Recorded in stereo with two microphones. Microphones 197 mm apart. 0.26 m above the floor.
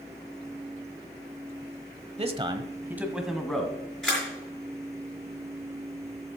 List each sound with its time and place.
2.2 s a man speaking: 30° right (ahead or behind), 1.0 m; by 3.8 s 5° left (ahead or behind), 1.8 m
4.0 s a camera shutter: centre (ahead or behind), 5 m